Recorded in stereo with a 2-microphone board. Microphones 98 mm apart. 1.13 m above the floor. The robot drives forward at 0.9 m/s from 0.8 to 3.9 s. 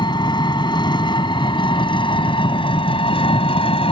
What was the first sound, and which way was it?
An engine running, 50° left (ahead or behind).